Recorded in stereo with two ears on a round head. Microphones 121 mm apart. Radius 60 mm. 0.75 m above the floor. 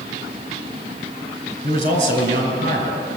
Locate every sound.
1.6 s a man speaking: 60° right (ahead or behind), 3.5 m; by 3.2 s 55° right (ahead or behind), 5.5 m